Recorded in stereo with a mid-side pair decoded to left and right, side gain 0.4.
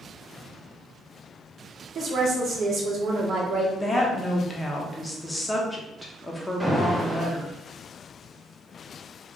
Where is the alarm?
10° right, 1.0 m.